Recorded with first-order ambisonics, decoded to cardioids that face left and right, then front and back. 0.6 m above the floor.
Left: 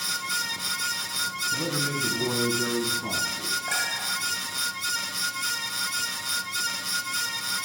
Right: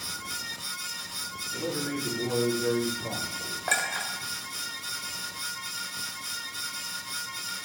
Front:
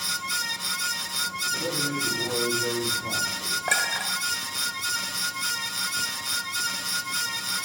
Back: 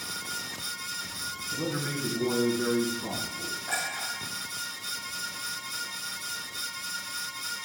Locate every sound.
1.5 s a man speaking: 105° left, 4.5 m; by 3.6 s 125° left, 5 m
3.7 s a clink: 30° right, 1.7 m